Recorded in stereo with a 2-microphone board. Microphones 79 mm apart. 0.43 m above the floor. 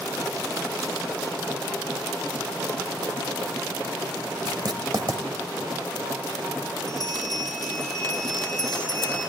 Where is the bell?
60° left (ahead or behind), 9 m.